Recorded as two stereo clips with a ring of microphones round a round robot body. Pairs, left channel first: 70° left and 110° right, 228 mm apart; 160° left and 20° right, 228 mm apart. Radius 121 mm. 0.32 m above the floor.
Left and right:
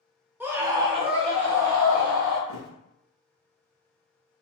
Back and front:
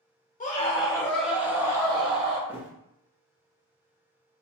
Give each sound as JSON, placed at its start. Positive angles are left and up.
{"t": 0.4, "sound": "a scream", "azimuth_deg": 170, "distance_m": 1.6}
{"t": 2.5, "sound": "a thud", "azimuth_deg": 60, "distance_m": 1.6}